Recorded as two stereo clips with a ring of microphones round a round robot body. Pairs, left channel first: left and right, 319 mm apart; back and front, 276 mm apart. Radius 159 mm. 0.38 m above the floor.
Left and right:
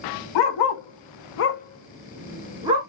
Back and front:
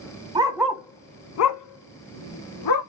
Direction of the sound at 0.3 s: 75° left.